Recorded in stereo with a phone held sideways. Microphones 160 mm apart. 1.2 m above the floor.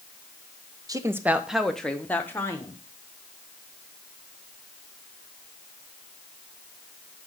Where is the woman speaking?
25° right (ahead or behind), 0.6 m; by 2.8 s 20° left (ahead or behind), 1.3 m.